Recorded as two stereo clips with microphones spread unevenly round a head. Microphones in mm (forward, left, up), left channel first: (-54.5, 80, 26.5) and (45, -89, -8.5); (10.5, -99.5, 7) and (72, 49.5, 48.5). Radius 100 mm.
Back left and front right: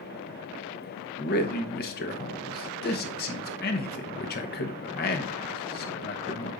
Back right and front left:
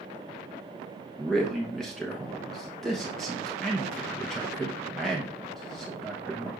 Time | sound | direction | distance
1.2 | a man speaking | 155° left | 0.9 m